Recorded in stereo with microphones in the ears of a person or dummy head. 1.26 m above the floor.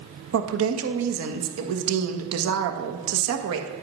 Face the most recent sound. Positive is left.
turn(degrees=-85)